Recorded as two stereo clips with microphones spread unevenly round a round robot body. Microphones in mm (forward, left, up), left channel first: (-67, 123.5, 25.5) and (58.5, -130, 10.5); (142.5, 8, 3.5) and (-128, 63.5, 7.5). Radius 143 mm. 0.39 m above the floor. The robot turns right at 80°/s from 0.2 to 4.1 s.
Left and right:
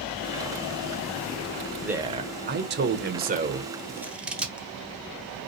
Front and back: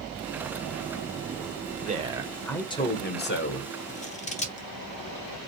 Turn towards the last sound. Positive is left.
turn(degrees=10)